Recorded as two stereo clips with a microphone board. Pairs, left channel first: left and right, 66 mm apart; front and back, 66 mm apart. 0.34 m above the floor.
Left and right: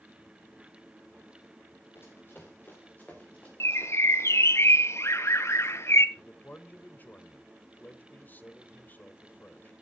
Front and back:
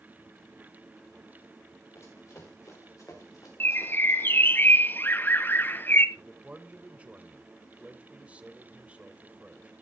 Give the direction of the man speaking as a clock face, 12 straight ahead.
8 o'clock.